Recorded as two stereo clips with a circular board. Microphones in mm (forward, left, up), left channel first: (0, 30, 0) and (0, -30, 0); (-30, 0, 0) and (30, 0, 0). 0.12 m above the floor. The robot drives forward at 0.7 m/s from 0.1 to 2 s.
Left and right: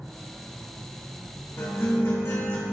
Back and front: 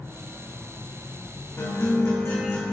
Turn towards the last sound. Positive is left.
turn(degrees=140)